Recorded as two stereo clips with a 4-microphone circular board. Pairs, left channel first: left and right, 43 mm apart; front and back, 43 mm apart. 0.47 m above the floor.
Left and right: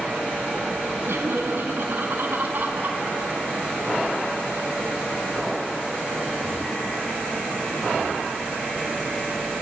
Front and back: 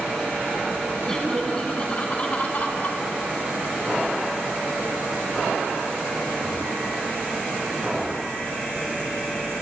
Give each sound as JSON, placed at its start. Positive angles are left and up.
{"t": 1.0, "sound": "laughter", "azimuth_deg": -75, "distance_m": 5.0}